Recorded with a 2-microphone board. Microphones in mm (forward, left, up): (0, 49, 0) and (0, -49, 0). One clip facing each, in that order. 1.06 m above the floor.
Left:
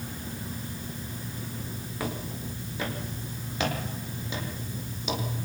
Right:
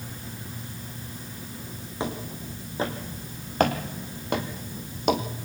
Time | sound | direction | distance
2.0 | footsteps | 25° right (ahead or behind) | 3.5 m